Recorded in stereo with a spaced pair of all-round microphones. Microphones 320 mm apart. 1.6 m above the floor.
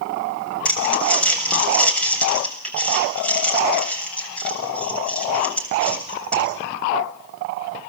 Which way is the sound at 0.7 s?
5° left (ahead or behind).